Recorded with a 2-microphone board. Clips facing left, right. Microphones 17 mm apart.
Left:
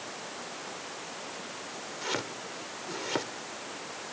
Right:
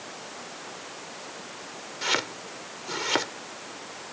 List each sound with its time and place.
2.0 s chopping: 40° right (ahead or behind)